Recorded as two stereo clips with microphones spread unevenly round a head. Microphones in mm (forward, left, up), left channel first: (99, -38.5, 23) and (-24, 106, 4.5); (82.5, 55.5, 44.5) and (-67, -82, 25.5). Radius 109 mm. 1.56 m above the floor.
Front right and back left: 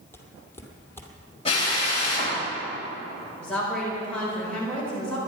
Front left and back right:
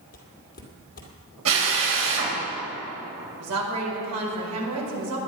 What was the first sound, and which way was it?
Footsteps, 20° left.